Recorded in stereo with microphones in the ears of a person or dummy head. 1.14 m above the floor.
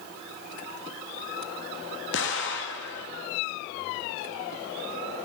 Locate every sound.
2.1 s an explosion: 55° left (ahead or behind), 1.2 m